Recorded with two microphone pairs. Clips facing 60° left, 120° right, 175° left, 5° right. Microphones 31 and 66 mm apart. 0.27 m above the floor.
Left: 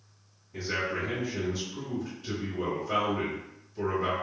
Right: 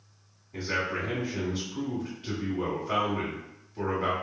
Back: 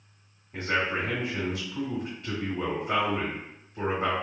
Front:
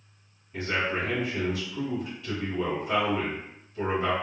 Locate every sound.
0.5 s a man speaking: 150° right, 1.5 m